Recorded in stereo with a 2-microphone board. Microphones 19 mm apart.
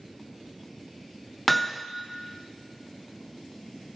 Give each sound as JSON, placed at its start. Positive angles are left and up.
{"t": 1.5, "sound": "hammering", "side_deg": 5, "distance_m": 0.5}